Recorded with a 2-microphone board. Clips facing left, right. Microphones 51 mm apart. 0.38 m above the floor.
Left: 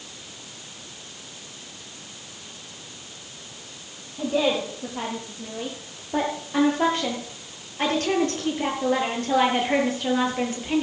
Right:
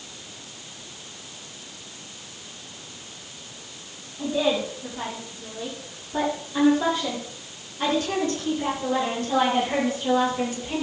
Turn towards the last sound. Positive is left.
turn(degrees=35)  # may be behind; listen again after turning